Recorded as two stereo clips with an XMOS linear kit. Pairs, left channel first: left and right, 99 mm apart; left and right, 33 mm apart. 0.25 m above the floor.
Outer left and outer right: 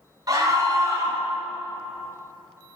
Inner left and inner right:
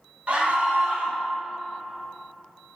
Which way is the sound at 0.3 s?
40° right (ahead or behind).